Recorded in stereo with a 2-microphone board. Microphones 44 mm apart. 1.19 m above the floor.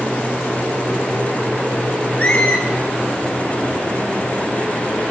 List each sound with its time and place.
2.2 s a squeak: 35° left (ahead or behind), 2 m